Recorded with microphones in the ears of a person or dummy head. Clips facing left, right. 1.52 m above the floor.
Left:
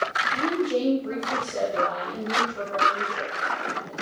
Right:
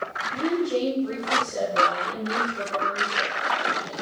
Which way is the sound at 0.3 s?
15° right (ahead or behind).